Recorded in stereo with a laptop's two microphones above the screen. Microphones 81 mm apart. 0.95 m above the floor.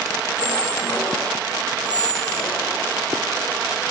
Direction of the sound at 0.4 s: 15° left (ahead or behind).